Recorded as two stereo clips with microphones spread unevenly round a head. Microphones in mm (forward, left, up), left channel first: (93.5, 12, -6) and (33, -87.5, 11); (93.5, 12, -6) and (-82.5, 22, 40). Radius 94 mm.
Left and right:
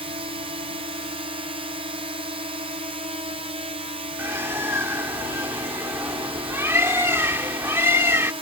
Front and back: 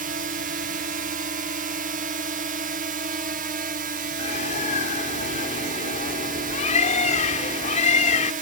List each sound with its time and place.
0.0 s a drone: 145° right
4.2 s a bird: 65° right